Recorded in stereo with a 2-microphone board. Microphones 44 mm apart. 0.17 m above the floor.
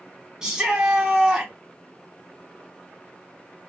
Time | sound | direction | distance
0.4 | a shout | 15° right (ahead or behind) | 1.0 m